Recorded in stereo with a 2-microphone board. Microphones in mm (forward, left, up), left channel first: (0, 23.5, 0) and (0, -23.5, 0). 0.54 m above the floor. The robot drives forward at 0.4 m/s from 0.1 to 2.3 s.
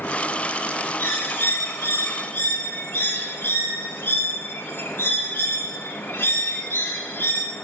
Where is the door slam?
No door slam in this recording.